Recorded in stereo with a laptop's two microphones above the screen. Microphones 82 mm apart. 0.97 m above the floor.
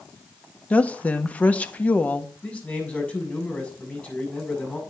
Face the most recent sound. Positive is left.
turn(degrees=15)  # may be behind; listen again after turning